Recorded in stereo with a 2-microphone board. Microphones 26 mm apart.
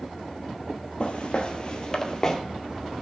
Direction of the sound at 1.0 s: 50° left (ahead or behind).